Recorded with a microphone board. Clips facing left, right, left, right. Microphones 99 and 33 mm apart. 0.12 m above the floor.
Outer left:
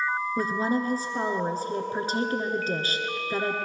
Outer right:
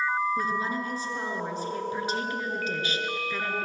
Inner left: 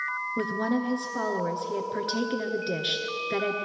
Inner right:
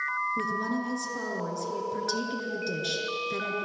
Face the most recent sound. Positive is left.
turn(degrees=40)  # may be behind; listen again after turning